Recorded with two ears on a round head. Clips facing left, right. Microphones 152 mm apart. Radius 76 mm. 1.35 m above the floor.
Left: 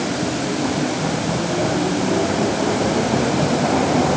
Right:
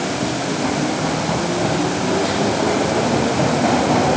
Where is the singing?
I don't hear singing.